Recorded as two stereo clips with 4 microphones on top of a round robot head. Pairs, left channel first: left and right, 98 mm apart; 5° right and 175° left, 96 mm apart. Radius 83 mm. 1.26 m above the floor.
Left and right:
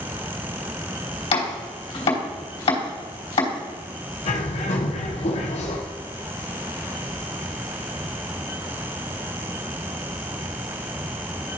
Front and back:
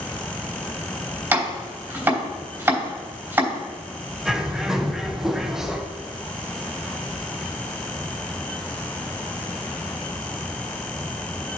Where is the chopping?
110° left, 3 m.